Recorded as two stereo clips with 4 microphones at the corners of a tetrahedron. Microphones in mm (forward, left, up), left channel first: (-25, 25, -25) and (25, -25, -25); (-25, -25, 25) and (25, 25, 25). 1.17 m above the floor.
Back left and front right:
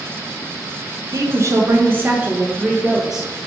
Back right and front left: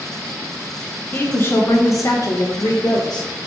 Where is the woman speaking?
75° right, 1.4 m; by 3.3 s 130° right, 1.9 m.